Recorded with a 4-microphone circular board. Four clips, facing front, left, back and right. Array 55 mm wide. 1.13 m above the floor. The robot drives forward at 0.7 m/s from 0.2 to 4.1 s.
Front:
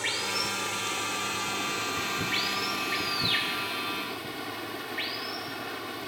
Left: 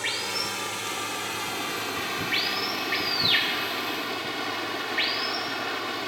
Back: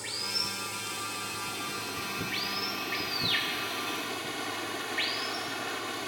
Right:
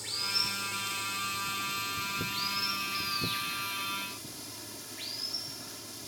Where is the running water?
50° left; by 6.1 s 95° left.